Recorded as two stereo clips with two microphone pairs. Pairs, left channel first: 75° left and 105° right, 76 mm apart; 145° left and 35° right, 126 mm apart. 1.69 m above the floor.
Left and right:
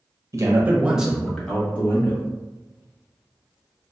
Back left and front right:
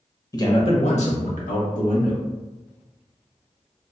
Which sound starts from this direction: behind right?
A man speaking, at 0.3 s.